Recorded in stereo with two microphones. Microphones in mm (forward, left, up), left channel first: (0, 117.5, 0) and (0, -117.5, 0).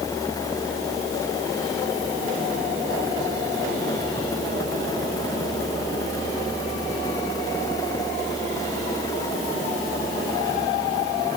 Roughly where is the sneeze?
No sneeze in this recording.